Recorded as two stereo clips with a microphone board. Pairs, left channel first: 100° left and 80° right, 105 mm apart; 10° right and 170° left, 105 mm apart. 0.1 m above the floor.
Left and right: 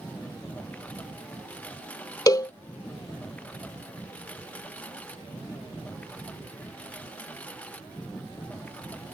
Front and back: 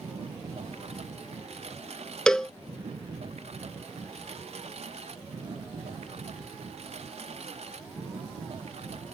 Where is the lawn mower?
175° left.